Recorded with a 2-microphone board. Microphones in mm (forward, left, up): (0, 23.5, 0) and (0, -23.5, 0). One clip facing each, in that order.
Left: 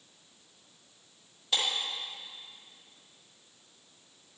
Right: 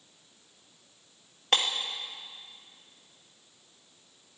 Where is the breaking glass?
60° right (ahead or behind), 1.6 m.